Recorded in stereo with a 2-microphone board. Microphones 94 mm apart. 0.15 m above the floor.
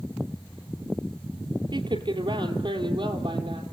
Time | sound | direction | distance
1.7 | a woman speaking | 60° right (ahead or behind) | 3 m